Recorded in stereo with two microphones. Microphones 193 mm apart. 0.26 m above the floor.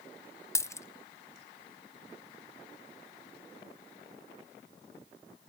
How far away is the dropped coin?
About 0.8 m.